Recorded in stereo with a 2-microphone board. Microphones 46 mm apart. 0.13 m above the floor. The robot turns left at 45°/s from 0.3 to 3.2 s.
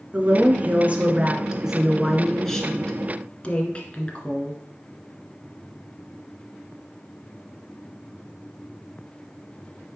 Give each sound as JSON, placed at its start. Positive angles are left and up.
{"t": 0.1, "sound": "a woman speaking", "azimuth_deg": -100, "distance_m": 1.6}